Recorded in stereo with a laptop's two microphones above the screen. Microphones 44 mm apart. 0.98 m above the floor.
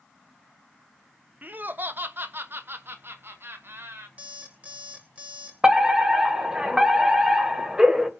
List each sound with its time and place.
1.4 s laughter: 40° right (ahead or behind), 0.8 m; by 4.1 s 65° right (ahead or behind), 2 m
4.2 s an alarm clock: 30° right (ahead or behind), 1.9 m
5.6 s a fire alarm: 20° right (ahead or behind), 1.4 m